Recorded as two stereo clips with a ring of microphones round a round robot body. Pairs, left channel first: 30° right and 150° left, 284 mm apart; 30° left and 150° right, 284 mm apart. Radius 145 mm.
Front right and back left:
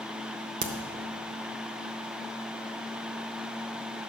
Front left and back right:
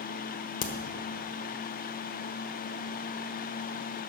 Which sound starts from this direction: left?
A crack, at 0.6 s.